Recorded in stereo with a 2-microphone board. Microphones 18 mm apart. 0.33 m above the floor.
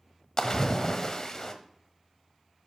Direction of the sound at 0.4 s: 35° left (ahead or behind).